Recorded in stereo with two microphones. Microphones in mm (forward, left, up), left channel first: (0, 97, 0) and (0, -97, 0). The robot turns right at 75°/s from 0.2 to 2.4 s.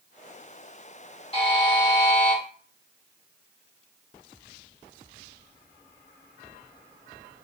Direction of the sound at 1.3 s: 95° left.